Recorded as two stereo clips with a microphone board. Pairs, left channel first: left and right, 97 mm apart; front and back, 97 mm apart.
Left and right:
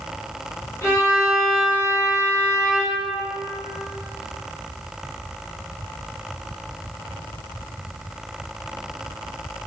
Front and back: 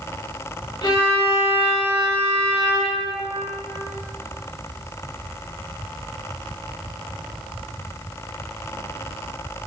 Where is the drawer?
No drawer in this recording.